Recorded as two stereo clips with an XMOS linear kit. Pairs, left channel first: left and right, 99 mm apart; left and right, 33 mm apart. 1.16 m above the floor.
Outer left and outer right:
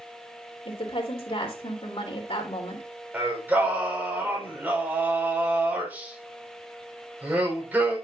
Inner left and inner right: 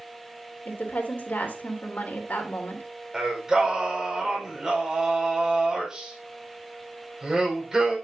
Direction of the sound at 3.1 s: 15° right (ahead or behind).